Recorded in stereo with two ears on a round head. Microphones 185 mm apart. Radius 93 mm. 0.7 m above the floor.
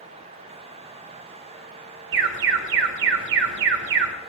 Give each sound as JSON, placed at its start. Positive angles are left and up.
{"t": 2.1, "sound": "an alarm", "side_deg": -60, "distance_m": 1.7}